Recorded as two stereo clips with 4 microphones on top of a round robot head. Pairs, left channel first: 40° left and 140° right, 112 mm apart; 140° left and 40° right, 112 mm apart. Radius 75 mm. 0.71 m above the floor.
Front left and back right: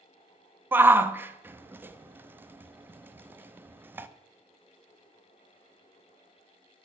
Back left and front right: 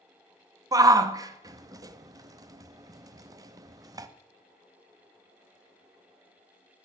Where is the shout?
80° right, 0.8 m.